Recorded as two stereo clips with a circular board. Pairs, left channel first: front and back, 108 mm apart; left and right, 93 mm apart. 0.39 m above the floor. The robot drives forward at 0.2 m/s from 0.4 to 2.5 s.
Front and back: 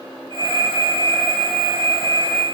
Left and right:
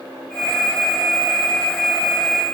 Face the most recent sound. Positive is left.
No sound to turn to.